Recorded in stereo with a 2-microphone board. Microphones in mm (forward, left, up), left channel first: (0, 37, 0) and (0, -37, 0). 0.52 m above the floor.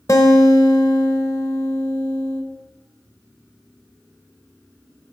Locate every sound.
0.1 s a guitar: 45° left (ahead or behind), 0.8 m